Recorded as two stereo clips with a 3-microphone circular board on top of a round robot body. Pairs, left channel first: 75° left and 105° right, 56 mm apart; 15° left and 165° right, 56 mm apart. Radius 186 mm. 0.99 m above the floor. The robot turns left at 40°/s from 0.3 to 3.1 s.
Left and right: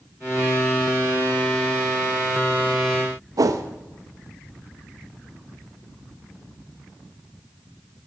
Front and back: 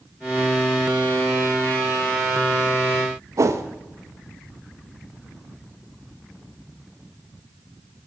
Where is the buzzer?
No buzzer in this recording.